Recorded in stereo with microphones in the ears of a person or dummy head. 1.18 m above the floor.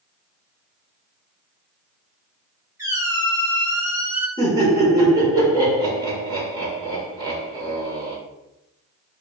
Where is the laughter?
20° right (ahead or behind), 0.9 m.